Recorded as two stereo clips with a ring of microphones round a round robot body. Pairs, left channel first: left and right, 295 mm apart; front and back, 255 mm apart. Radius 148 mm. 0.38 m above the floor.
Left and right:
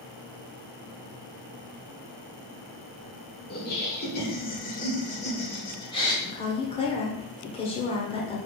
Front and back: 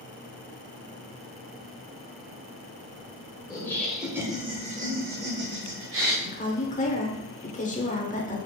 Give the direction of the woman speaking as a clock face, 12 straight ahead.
11 o'clock.